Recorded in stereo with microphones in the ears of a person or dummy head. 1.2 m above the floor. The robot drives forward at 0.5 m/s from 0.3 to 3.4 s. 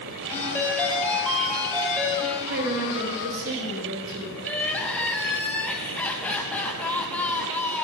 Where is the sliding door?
No sliding door in this recording.